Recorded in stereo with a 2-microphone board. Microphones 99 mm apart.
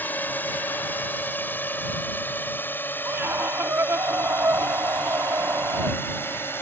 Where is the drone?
15° left (ahead or behind); by 6.6 s 20° left (ahead or behind).